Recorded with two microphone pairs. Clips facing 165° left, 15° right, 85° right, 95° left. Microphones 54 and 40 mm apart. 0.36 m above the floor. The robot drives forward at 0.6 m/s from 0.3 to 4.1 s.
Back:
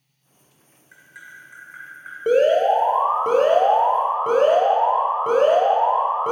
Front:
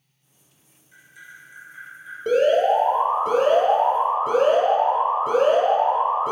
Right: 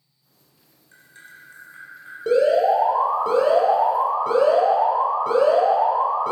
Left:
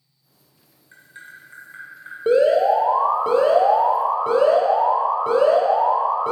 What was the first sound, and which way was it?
Tapping, 155° left.